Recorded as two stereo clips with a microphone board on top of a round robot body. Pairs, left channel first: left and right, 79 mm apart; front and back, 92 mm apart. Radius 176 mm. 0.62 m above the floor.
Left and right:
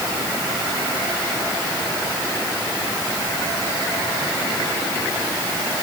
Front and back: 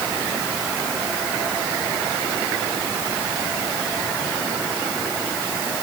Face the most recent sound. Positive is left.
No sound to turn to.